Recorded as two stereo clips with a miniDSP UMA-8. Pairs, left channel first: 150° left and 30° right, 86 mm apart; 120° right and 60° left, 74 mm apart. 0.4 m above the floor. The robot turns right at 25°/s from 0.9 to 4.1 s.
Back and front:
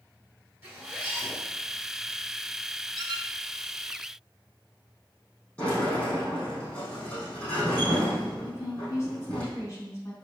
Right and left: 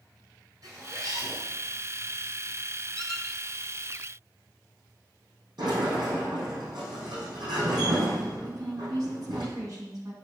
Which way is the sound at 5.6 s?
75° left.